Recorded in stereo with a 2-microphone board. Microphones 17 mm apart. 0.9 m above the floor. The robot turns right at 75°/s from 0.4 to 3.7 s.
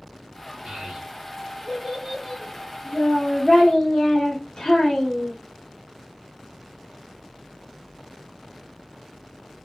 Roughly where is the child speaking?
Behind right.